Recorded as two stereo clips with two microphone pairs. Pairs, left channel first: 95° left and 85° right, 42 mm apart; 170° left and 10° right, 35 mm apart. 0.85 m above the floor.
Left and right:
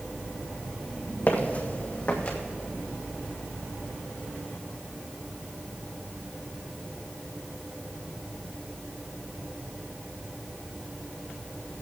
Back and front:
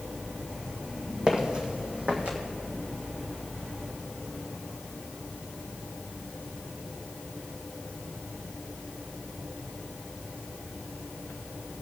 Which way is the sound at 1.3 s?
55° left.